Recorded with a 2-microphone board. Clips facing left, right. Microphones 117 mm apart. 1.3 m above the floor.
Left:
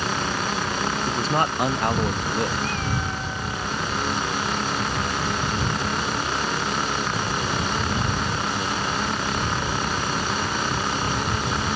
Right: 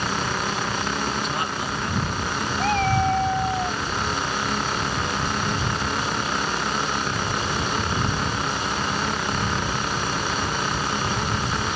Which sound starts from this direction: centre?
A man speaking, at 1.1 s.